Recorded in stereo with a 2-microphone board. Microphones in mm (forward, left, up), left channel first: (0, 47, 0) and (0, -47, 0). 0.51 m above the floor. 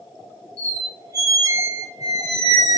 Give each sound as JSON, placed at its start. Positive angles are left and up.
{"t": 0.6, "sound": "a squeak", "side_deg": -35, "distance_m": 0.9}